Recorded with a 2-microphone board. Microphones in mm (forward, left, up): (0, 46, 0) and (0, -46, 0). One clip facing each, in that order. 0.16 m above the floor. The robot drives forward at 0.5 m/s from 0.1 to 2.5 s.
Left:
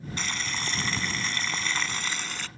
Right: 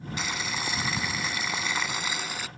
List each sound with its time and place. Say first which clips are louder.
0.2 s boiling: right 1 dB; 10° right (ahead or behind)